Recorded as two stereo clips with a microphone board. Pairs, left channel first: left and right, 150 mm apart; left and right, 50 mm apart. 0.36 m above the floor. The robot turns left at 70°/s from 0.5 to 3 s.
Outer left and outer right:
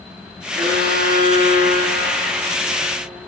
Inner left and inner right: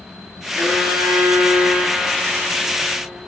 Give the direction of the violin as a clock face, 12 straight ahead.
2 o'clock.